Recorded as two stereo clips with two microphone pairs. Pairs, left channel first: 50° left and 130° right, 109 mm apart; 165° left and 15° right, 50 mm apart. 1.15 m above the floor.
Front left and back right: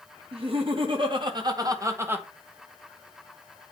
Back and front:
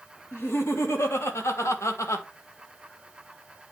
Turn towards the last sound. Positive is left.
turn(degrees=160)